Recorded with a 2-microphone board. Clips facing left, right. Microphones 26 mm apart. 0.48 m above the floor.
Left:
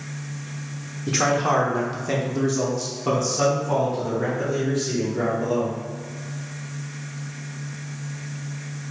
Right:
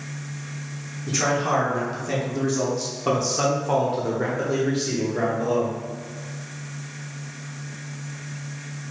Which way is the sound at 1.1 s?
40° left (ahead or behind).